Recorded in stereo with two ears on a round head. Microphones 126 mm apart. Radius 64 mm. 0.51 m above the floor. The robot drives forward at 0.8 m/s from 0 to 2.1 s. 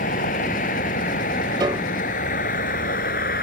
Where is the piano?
30° right (ahead or behind); by 2.0 s 40° right (ahead or behind).